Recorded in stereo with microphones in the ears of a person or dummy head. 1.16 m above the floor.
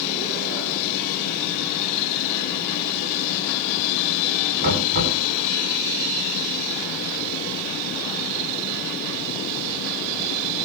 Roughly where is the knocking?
Right.